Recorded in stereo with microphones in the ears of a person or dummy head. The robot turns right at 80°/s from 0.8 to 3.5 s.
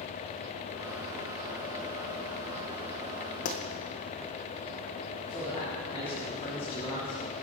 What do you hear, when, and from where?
3.5 s a pop: 45° left (ahead or behind), 1.6 m; by 3.6 s 40° left (ahead or behind), 1.6 m
5.3 s a man speaking: 25° left (ahead or behind), 4.5 m